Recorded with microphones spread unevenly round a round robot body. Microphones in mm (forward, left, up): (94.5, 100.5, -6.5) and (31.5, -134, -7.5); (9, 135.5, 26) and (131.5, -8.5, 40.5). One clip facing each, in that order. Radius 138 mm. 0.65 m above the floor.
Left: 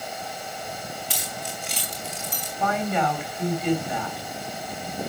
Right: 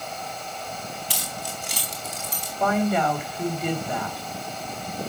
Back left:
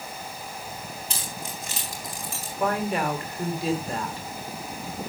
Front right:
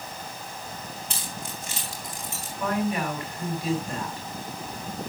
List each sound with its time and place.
1.1 s keys jangling: 165° right, 4 m; by 2.5 s 160° right, 4.5 m
2.6 s a woman speaking: 170° right, 3.5 m